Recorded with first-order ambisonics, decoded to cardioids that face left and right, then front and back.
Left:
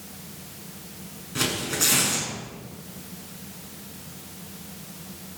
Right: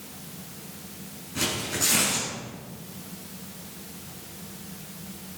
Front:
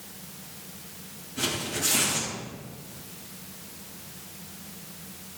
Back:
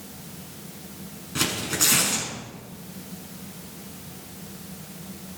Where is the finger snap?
No finger snap in this recording.